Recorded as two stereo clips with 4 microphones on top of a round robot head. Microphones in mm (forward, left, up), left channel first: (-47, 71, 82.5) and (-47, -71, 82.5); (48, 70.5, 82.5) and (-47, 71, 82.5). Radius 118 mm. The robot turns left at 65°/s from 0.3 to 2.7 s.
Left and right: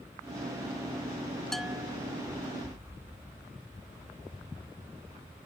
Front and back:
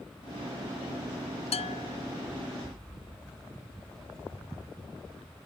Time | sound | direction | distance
1.5 | a bell | 5° left | ?